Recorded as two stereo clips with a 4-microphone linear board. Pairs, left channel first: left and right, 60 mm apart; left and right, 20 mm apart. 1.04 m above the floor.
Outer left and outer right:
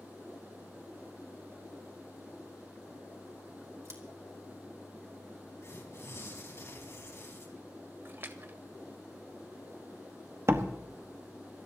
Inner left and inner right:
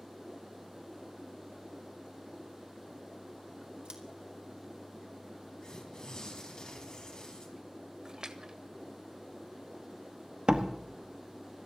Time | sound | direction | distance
3.9 | scissors | 60° right (ahead or behind) | 2.5 m
5.6 | tearing paper | 50° left (ahead or behind) | 3.5 m
8.1 | a splash | 40° right (ahead or behind) | 1.2 m
10.5 | a door slam | 50° right (ahead or behind) | 1.3 m